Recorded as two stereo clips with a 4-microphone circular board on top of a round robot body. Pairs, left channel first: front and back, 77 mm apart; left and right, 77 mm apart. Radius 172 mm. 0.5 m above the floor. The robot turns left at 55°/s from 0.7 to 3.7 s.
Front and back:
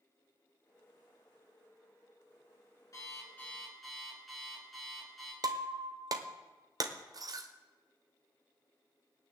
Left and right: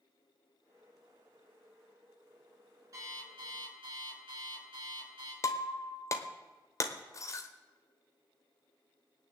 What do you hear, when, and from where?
2.9 s an alarm clock: 45° right, 5.5 m; by 5.3 s 90° right, 5.5 m
5.4 s breaking glass: 140° left, 0.9 m